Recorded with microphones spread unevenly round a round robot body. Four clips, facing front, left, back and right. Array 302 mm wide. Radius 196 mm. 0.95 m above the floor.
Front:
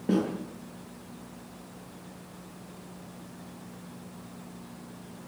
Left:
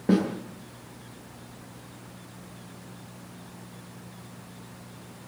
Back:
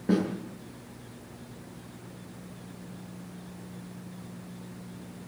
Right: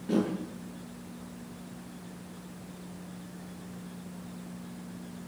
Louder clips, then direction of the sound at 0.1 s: Left 5 dB, even; 60° left.